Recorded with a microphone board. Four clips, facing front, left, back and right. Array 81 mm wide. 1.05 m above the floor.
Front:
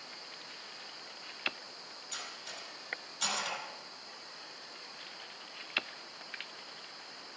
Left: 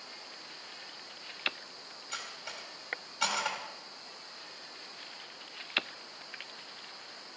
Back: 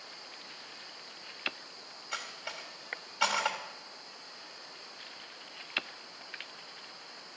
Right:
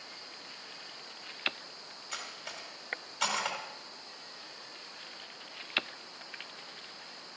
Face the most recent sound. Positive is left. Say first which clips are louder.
# even, back 6 dB
turn(degrees=-170)